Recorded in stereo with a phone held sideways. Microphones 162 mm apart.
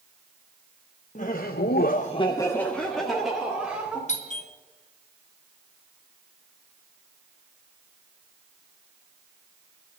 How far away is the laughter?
About 1.0 m.